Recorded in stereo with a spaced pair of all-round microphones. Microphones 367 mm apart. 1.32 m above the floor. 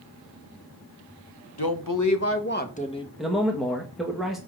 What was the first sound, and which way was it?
A woman speaking, 70° left (ahead or behind).